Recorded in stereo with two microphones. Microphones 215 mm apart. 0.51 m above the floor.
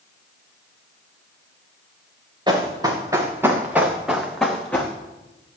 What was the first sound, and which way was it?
Running footsteps, 20° right (ahead or behind).